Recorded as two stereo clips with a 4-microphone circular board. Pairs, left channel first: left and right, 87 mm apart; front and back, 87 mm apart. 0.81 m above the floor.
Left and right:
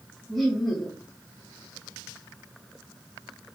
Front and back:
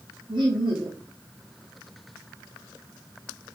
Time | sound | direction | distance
0.3 | laughter | straight behind | 1.3 m